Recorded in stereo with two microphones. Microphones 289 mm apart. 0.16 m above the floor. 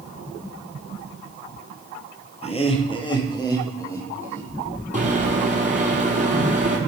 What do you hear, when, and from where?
2.4 s laughter: 20° left (ahead or behind), 3 m; by 4.5 s 10° left (ahead or behind), 4.5 m
4.9 s a microwave: 25° right (ahead or behind), 3 m